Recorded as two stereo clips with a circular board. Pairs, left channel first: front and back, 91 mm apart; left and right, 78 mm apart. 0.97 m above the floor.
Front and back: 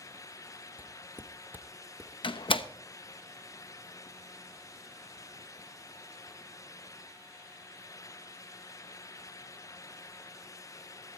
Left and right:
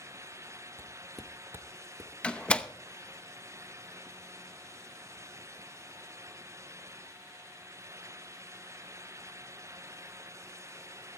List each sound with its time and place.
0.8 s footsteps: 125° left, 1.1 m; by 2.1 s 115° right, 1.8 m
2.2 s a door slam: 15° left, 0.8 m